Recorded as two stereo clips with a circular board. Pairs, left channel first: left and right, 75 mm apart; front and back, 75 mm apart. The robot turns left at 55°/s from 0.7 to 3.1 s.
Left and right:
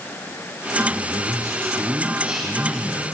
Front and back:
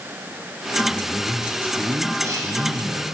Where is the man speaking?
80° right, 2 m; by 3.1 s 160° left, 2 m.